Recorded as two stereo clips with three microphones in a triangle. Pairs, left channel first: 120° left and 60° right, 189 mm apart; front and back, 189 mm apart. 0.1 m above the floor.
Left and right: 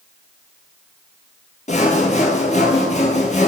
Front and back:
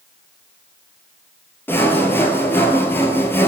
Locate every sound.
1.7 s sawing: 80° left, 0.7 m